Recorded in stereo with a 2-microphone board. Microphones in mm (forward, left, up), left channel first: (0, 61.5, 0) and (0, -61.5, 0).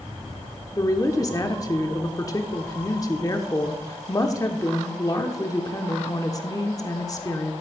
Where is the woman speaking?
30° left (ahead or behind), 0.7 m.